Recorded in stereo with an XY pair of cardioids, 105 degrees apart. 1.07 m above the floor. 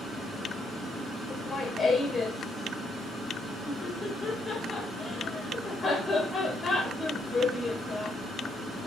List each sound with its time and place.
1.3 s laughter: 30° left, 3 m